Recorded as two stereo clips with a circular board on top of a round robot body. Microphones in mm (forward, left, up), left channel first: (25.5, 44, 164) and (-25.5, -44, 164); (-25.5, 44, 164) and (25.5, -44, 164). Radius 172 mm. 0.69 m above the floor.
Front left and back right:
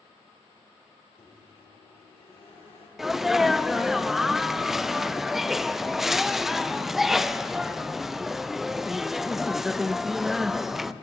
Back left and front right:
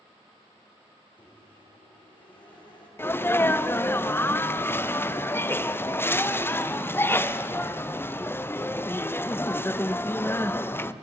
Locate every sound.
1.2 s a microwave: 85° left, 2.5 m
3.0 s a sneeze: 155° left, 0.6 m